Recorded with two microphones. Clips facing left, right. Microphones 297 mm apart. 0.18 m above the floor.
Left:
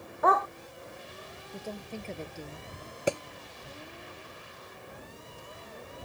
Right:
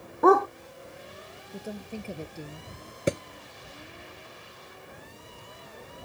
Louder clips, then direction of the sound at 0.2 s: Right 10 dB; 55° right (ahead or behind).